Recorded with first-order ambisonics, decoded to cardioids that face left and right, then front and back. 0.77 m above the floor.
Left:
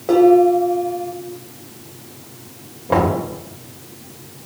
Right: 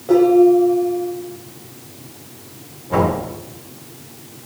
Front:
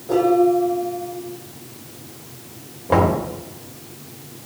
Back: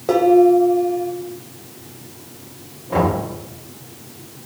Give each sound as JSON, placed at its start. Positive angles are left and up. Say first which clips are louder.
{"t": 0.1, "sound": "dishes clattering", "louder": "even, back 4 dB", "azimuth_deg": 155, "distance_m": 2.0}
{"t": 2.9, "sound": "knocking", "louder": "left 1 dB, front 2 dB", "azimuth_deg": 45, "distance_m": 3.0}